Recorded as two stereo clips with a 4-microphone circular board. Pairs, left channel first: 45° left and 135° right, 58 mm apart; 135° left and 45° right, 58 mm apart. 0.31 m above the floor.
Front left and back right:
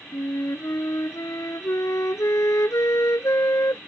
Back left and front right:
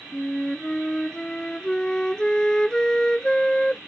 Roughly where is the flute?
Ahead left.